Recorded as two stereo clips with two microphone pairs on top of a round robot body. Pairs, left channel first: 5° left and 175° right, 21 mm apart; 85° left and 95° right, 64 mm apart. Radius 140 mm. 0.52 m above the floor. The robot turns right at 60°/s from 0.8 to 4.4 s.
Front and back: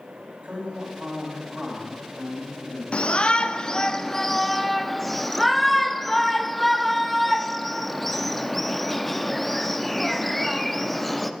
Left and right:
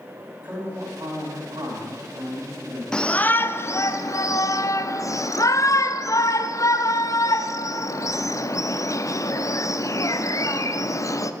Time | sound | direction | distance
0.4 | a man speaking | 155° right | 4.5 m
2.9 | a shout | 5° left | 0.9 m